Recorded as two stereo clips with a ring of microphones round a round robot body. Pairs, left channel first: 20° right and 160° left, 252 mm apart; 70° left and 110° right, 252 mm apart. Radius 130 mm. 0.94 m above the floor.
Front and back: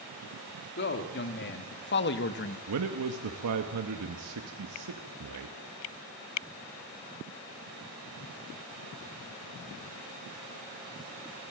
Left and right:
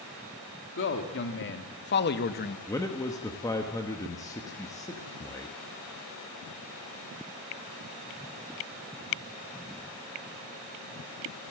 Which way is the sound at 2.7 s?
145° left.